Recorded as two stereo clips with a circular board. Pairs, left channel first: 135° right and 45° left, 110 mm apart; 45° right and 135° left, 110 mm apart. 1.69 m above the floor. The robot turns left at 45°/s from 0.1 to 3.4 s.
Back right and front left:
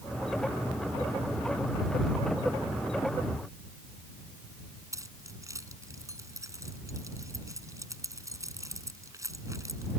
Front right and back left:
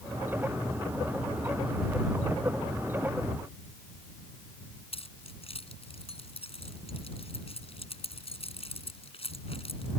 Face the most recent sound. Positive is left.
turn(degrees=-15)